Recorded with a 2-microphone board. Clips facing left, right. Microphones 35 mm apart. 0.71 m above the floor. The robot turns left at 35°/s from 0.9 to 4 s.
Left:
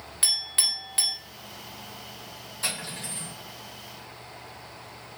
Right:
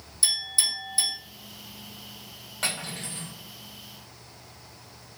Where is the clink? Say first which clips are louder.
Even; 60° left (ahead or behind), 0.9 m; by 1.1 s 70° left (ahead or behind), 0.9 m.